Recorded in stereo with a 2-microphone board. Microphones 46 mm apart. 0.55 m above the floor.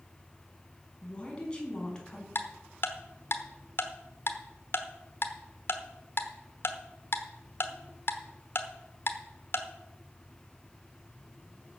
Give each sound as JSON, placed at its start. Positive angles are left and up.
{"t": 1.0, "sound": "a woman speaking", "side_deg": 25, "distance_m": 4.5}
{"t": 2.4, "sound": "ticking", "side_deg": 55, "distance_m": 1.1}